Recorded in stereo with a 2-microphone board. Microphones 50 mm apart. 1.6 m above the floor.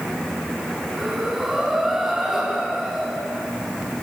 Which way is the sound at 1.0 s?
10° right (ahead or behind).